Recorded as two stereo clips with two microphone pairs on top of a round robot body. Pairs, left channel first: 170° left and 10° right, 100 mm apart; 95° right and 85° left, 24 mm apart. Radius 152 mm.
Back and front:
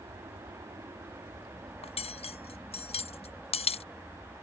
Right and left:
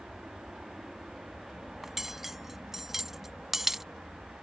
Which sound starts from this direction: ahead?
An aircraft, at 0.0 s.